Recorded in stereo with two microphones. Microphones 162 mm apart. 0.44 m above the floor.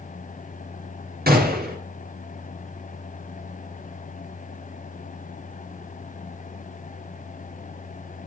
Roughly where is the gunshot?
Right.